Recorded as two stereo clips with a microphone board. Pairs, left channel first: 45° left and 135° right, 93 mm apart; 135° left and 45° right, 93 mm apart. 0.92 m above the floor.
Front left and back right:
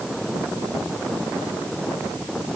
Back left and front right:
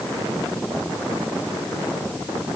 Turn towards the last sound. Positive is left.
No sound to turn to.